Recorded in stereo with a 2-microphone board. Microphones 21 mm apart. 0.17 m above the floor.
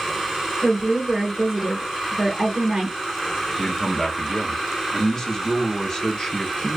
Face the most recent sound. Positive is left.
turn(degrees=25)  # may be behind; listen again after turning